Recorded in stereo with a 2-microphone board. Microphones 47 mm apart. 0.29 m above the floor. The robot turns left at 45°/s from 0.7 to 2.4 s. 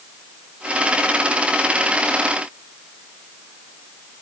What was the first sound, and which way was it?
Only background noise.